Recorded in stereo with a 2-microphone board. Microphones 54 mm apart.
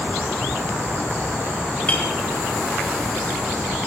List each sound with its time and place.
1.9 s a clink: 25° left (ahead or behind), 1.8 m